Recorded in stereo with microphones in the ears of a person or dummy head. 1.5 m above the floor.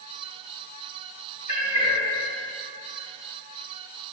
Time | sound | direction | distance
1.5 | a cat meowing | 45° right (ahead or behind) | 3 m